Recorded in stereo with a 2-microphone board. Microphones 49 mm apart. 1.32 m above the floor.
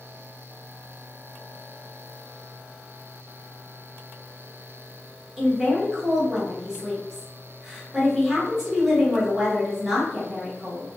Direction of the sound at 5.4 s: 10° right (ahead or behind).